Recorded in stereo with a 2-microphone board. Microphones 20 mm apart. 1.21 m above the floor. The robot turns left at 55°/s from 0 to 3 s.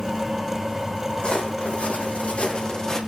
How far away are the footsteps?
About 4.5 m.